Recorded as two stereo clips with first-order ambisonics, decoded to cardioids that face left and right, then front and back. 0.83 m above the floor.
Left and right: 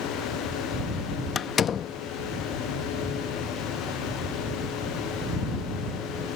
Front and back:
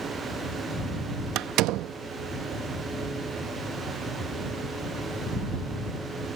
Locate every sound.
1.4 s a door slam: 150° left